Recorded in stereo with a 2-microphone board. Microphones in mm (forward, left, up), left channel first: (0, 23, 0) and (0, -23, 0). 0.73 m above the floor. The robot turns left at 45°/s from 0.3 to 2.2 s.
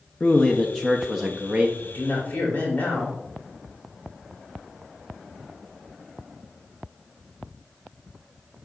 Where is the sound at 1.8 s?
55° left (ahead or behind), 2.5 m; by 3.2 s 40° left (ahead or behind), 2.5 m.